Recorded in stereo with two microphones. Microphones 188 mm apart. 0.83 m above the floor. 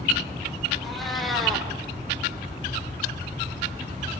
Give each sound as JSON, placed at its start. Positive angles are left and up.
{"t": 0.8, "sound": "a cat meowing", "side_deg": 0, "distance_m": 4.5}